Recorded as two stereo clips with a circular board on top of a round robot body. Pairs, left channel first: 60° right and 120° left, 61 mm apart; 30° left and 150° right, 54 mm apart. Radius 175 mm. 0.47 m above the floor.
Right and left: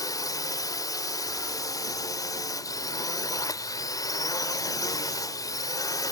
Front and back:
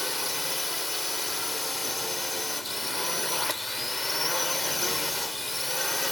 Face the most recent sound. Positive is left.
turn(degrees=-60)